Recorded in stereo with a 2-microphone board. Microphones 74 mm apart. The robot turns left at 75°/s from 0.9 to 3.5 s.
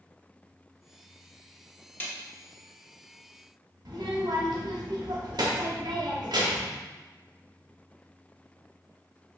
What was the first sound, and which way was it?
A snare drum, 25° left (ahead or behind).